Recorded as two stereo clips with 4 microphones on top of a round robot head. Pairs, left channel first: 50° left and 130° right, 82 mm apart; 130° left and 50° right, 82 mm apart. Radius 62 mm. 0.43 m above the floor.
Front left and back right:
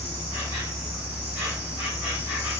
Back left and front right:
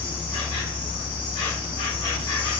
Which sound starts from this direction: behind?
An insect, at 0.0 s.